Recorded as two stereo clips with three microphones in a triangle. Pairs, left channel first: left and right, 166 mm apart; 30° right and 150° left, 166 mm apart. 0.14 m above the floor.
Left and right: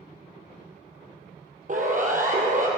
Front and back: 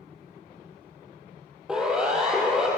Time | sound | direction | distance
1.7 | a siren | 125° right | 5 m